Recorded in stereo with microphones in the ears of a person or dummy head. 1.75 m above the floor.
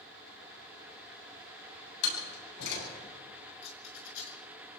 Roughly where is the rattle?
Left.